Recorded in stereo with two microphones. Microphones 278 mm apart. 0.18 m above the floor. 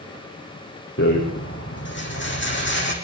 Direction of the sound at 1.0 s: 40° left (ahead or behind).